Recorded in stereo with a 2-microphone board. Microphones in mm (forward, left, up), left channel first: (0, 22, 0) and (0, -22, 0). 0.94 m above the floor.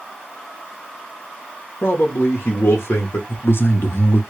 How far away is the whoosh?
I don't hear a whoosh.